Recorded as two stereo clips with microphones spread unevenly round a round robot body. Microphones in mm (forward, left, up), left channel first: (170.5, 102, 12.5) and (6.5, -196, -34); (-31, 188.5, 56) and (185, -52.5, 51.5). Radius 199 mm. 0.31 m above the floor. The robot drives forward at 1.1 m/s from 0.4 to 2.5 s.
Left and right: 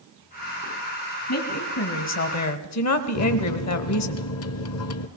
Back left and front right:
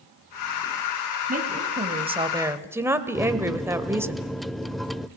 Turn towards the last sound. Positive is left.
turn(degrees=40)